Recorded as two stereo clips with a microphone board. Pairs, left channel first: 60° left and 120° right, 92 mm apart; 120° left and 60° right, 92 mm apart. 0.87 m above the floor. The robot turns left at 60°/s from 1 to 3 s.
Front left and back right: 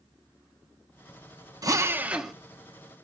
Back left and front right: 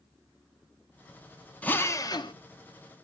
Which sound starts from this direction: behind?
A drill, at 1.6 s.